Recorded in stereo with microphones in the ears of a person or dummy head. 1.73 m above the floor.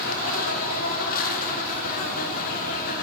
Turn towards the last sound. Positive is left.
turn(degrees=45)  # may be behind; listen again after turning